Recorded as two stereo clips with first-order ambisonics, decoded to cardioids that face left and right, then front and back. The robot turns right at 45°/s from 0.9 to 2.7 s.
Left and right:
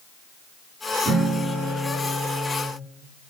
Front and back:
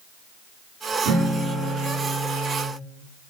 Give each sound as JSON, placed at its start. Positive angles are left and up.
{"t": 1.1, "sound": "a guitar", "azimuth_deg": -165, "distance_m": 9.0}